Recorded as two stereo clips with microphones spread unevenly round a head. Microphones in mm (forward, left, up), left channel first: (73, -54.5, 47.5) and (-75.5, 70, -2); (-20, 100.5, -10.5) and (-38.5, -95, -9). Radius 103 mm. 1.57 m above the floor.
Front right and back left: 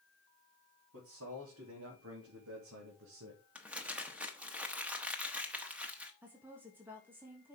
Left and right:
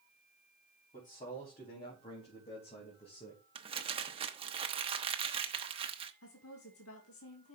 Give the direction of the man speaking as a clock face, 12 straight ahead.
7 o'clock.